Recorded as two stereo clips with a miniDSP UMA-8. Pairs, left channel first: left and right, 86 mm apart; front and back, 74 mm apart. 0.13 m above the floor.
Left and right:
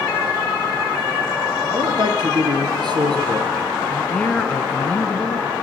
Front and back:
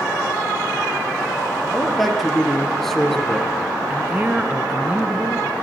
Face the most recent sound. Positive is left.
turn(degrees=140)